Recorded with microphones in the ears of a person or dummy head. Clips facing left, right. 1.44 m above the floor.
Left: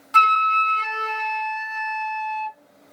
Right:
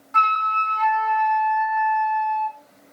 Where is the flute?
45° left (ahead or behind), 0.7 m.